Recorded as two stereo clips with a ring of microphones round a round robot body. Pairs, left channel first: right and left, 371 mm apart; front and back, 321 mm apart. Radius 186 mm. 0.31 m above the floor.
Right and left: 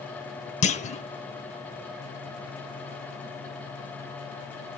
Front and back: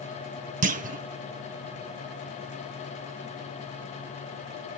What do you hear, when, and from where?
0.6 s a clunk: 140° right, 0.7 m